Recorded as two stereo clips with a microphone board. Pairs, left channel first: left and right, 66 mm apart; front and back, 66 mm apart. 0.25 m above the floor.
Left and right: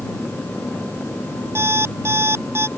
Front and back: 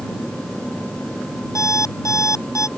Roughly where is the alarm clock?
Ahead right.